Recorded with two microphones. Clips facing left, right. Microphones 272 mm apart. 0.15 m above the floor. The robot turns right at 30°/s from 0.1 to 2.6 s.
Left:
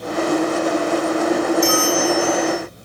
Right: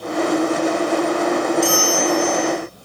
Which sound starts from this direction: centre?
A bell, at 1.6 s.